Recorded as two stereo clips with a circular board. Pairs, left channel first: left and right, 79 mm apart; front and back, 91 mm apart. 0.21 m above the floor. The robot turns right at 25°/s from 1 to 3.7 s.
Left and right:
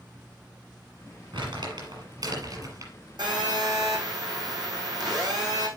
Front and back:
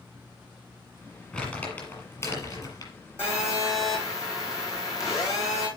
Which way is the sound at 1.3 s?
85° right.